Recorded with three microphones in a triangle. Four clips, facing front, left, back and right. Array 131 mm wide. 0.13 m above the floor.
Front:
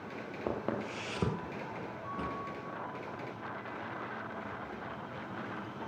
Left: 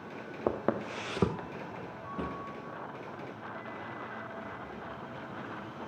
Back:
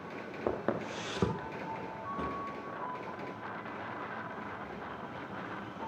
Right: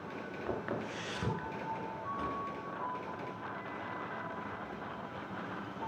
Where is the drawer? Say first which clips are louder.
Left 3 dB, back 1 dB; 100° left, 1.9 m.